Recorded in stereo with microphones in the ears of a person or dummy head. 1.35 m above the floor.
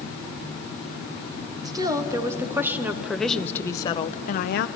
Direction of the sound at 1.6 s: 20° right (ahead or behind).